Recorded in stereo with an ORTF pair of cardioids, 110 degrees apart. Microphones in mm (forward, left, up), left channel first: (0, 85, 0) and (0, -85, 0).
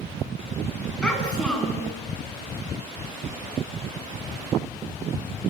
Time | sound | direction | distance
1.0 | a child speaking | 5° left | 8 m